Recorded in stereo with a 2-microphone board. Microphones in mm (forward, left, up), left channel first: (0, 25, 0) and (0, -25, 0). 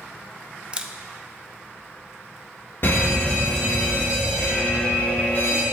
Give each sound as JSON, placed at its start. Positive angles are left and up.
{"t": 0.7, "sound": "a camera shutter", "side_deg": -20, "distance_m": 0.5}
{"t": 2.8, "sound": "a fire alarm", "side_deg": 50, "distance_m": 2.0}